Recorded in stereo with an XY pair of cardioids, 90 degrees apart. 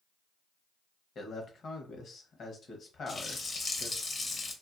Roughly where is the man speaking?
Ahead left.